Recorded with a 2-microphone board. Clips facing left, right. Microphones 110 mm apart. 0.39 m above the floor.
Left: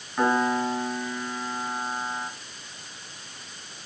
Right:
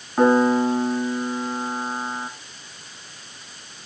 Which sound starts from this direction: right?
A piano, at 0.2 s.